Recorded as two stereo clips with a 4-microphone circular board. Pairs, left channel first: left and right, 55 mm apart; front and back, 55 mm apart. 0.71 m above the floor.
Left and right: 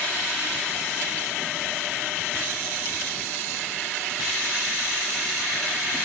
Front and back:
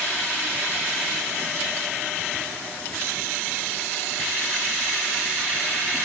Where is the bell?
I don't hear a bell.